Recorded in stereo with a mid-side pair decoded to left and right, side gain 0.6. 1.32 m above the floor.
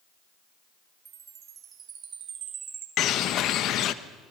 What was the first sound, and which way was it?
A chime, 40° right.